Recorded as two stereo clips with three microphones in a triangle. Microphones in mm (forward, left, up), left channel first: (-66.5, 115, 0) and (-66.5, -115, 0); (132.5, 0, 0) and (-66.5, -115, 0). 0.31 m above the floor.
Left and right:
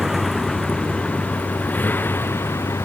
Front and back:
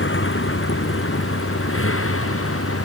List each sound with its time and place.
0.0 s a vehicle: straight ahead; by 2.9 s 10° left